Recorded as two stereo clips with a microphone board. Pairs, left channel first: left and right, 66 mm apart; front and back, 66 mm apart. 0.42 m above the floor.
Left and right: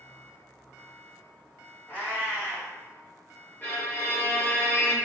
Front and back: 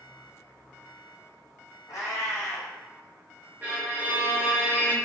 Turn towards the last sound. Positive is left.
turn(degrees=135)